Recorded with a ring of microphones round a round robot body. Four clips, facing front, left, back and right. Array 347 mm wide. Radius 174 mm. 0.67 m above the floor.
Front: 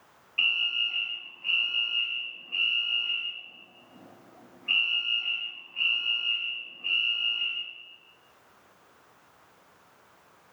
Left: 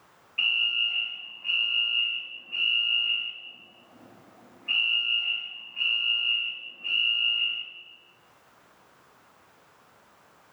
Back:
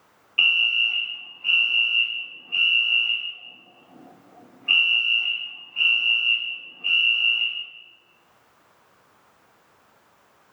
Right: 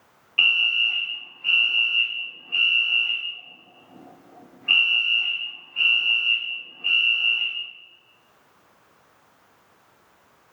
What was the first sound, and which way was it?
A fire alarm, 125° right.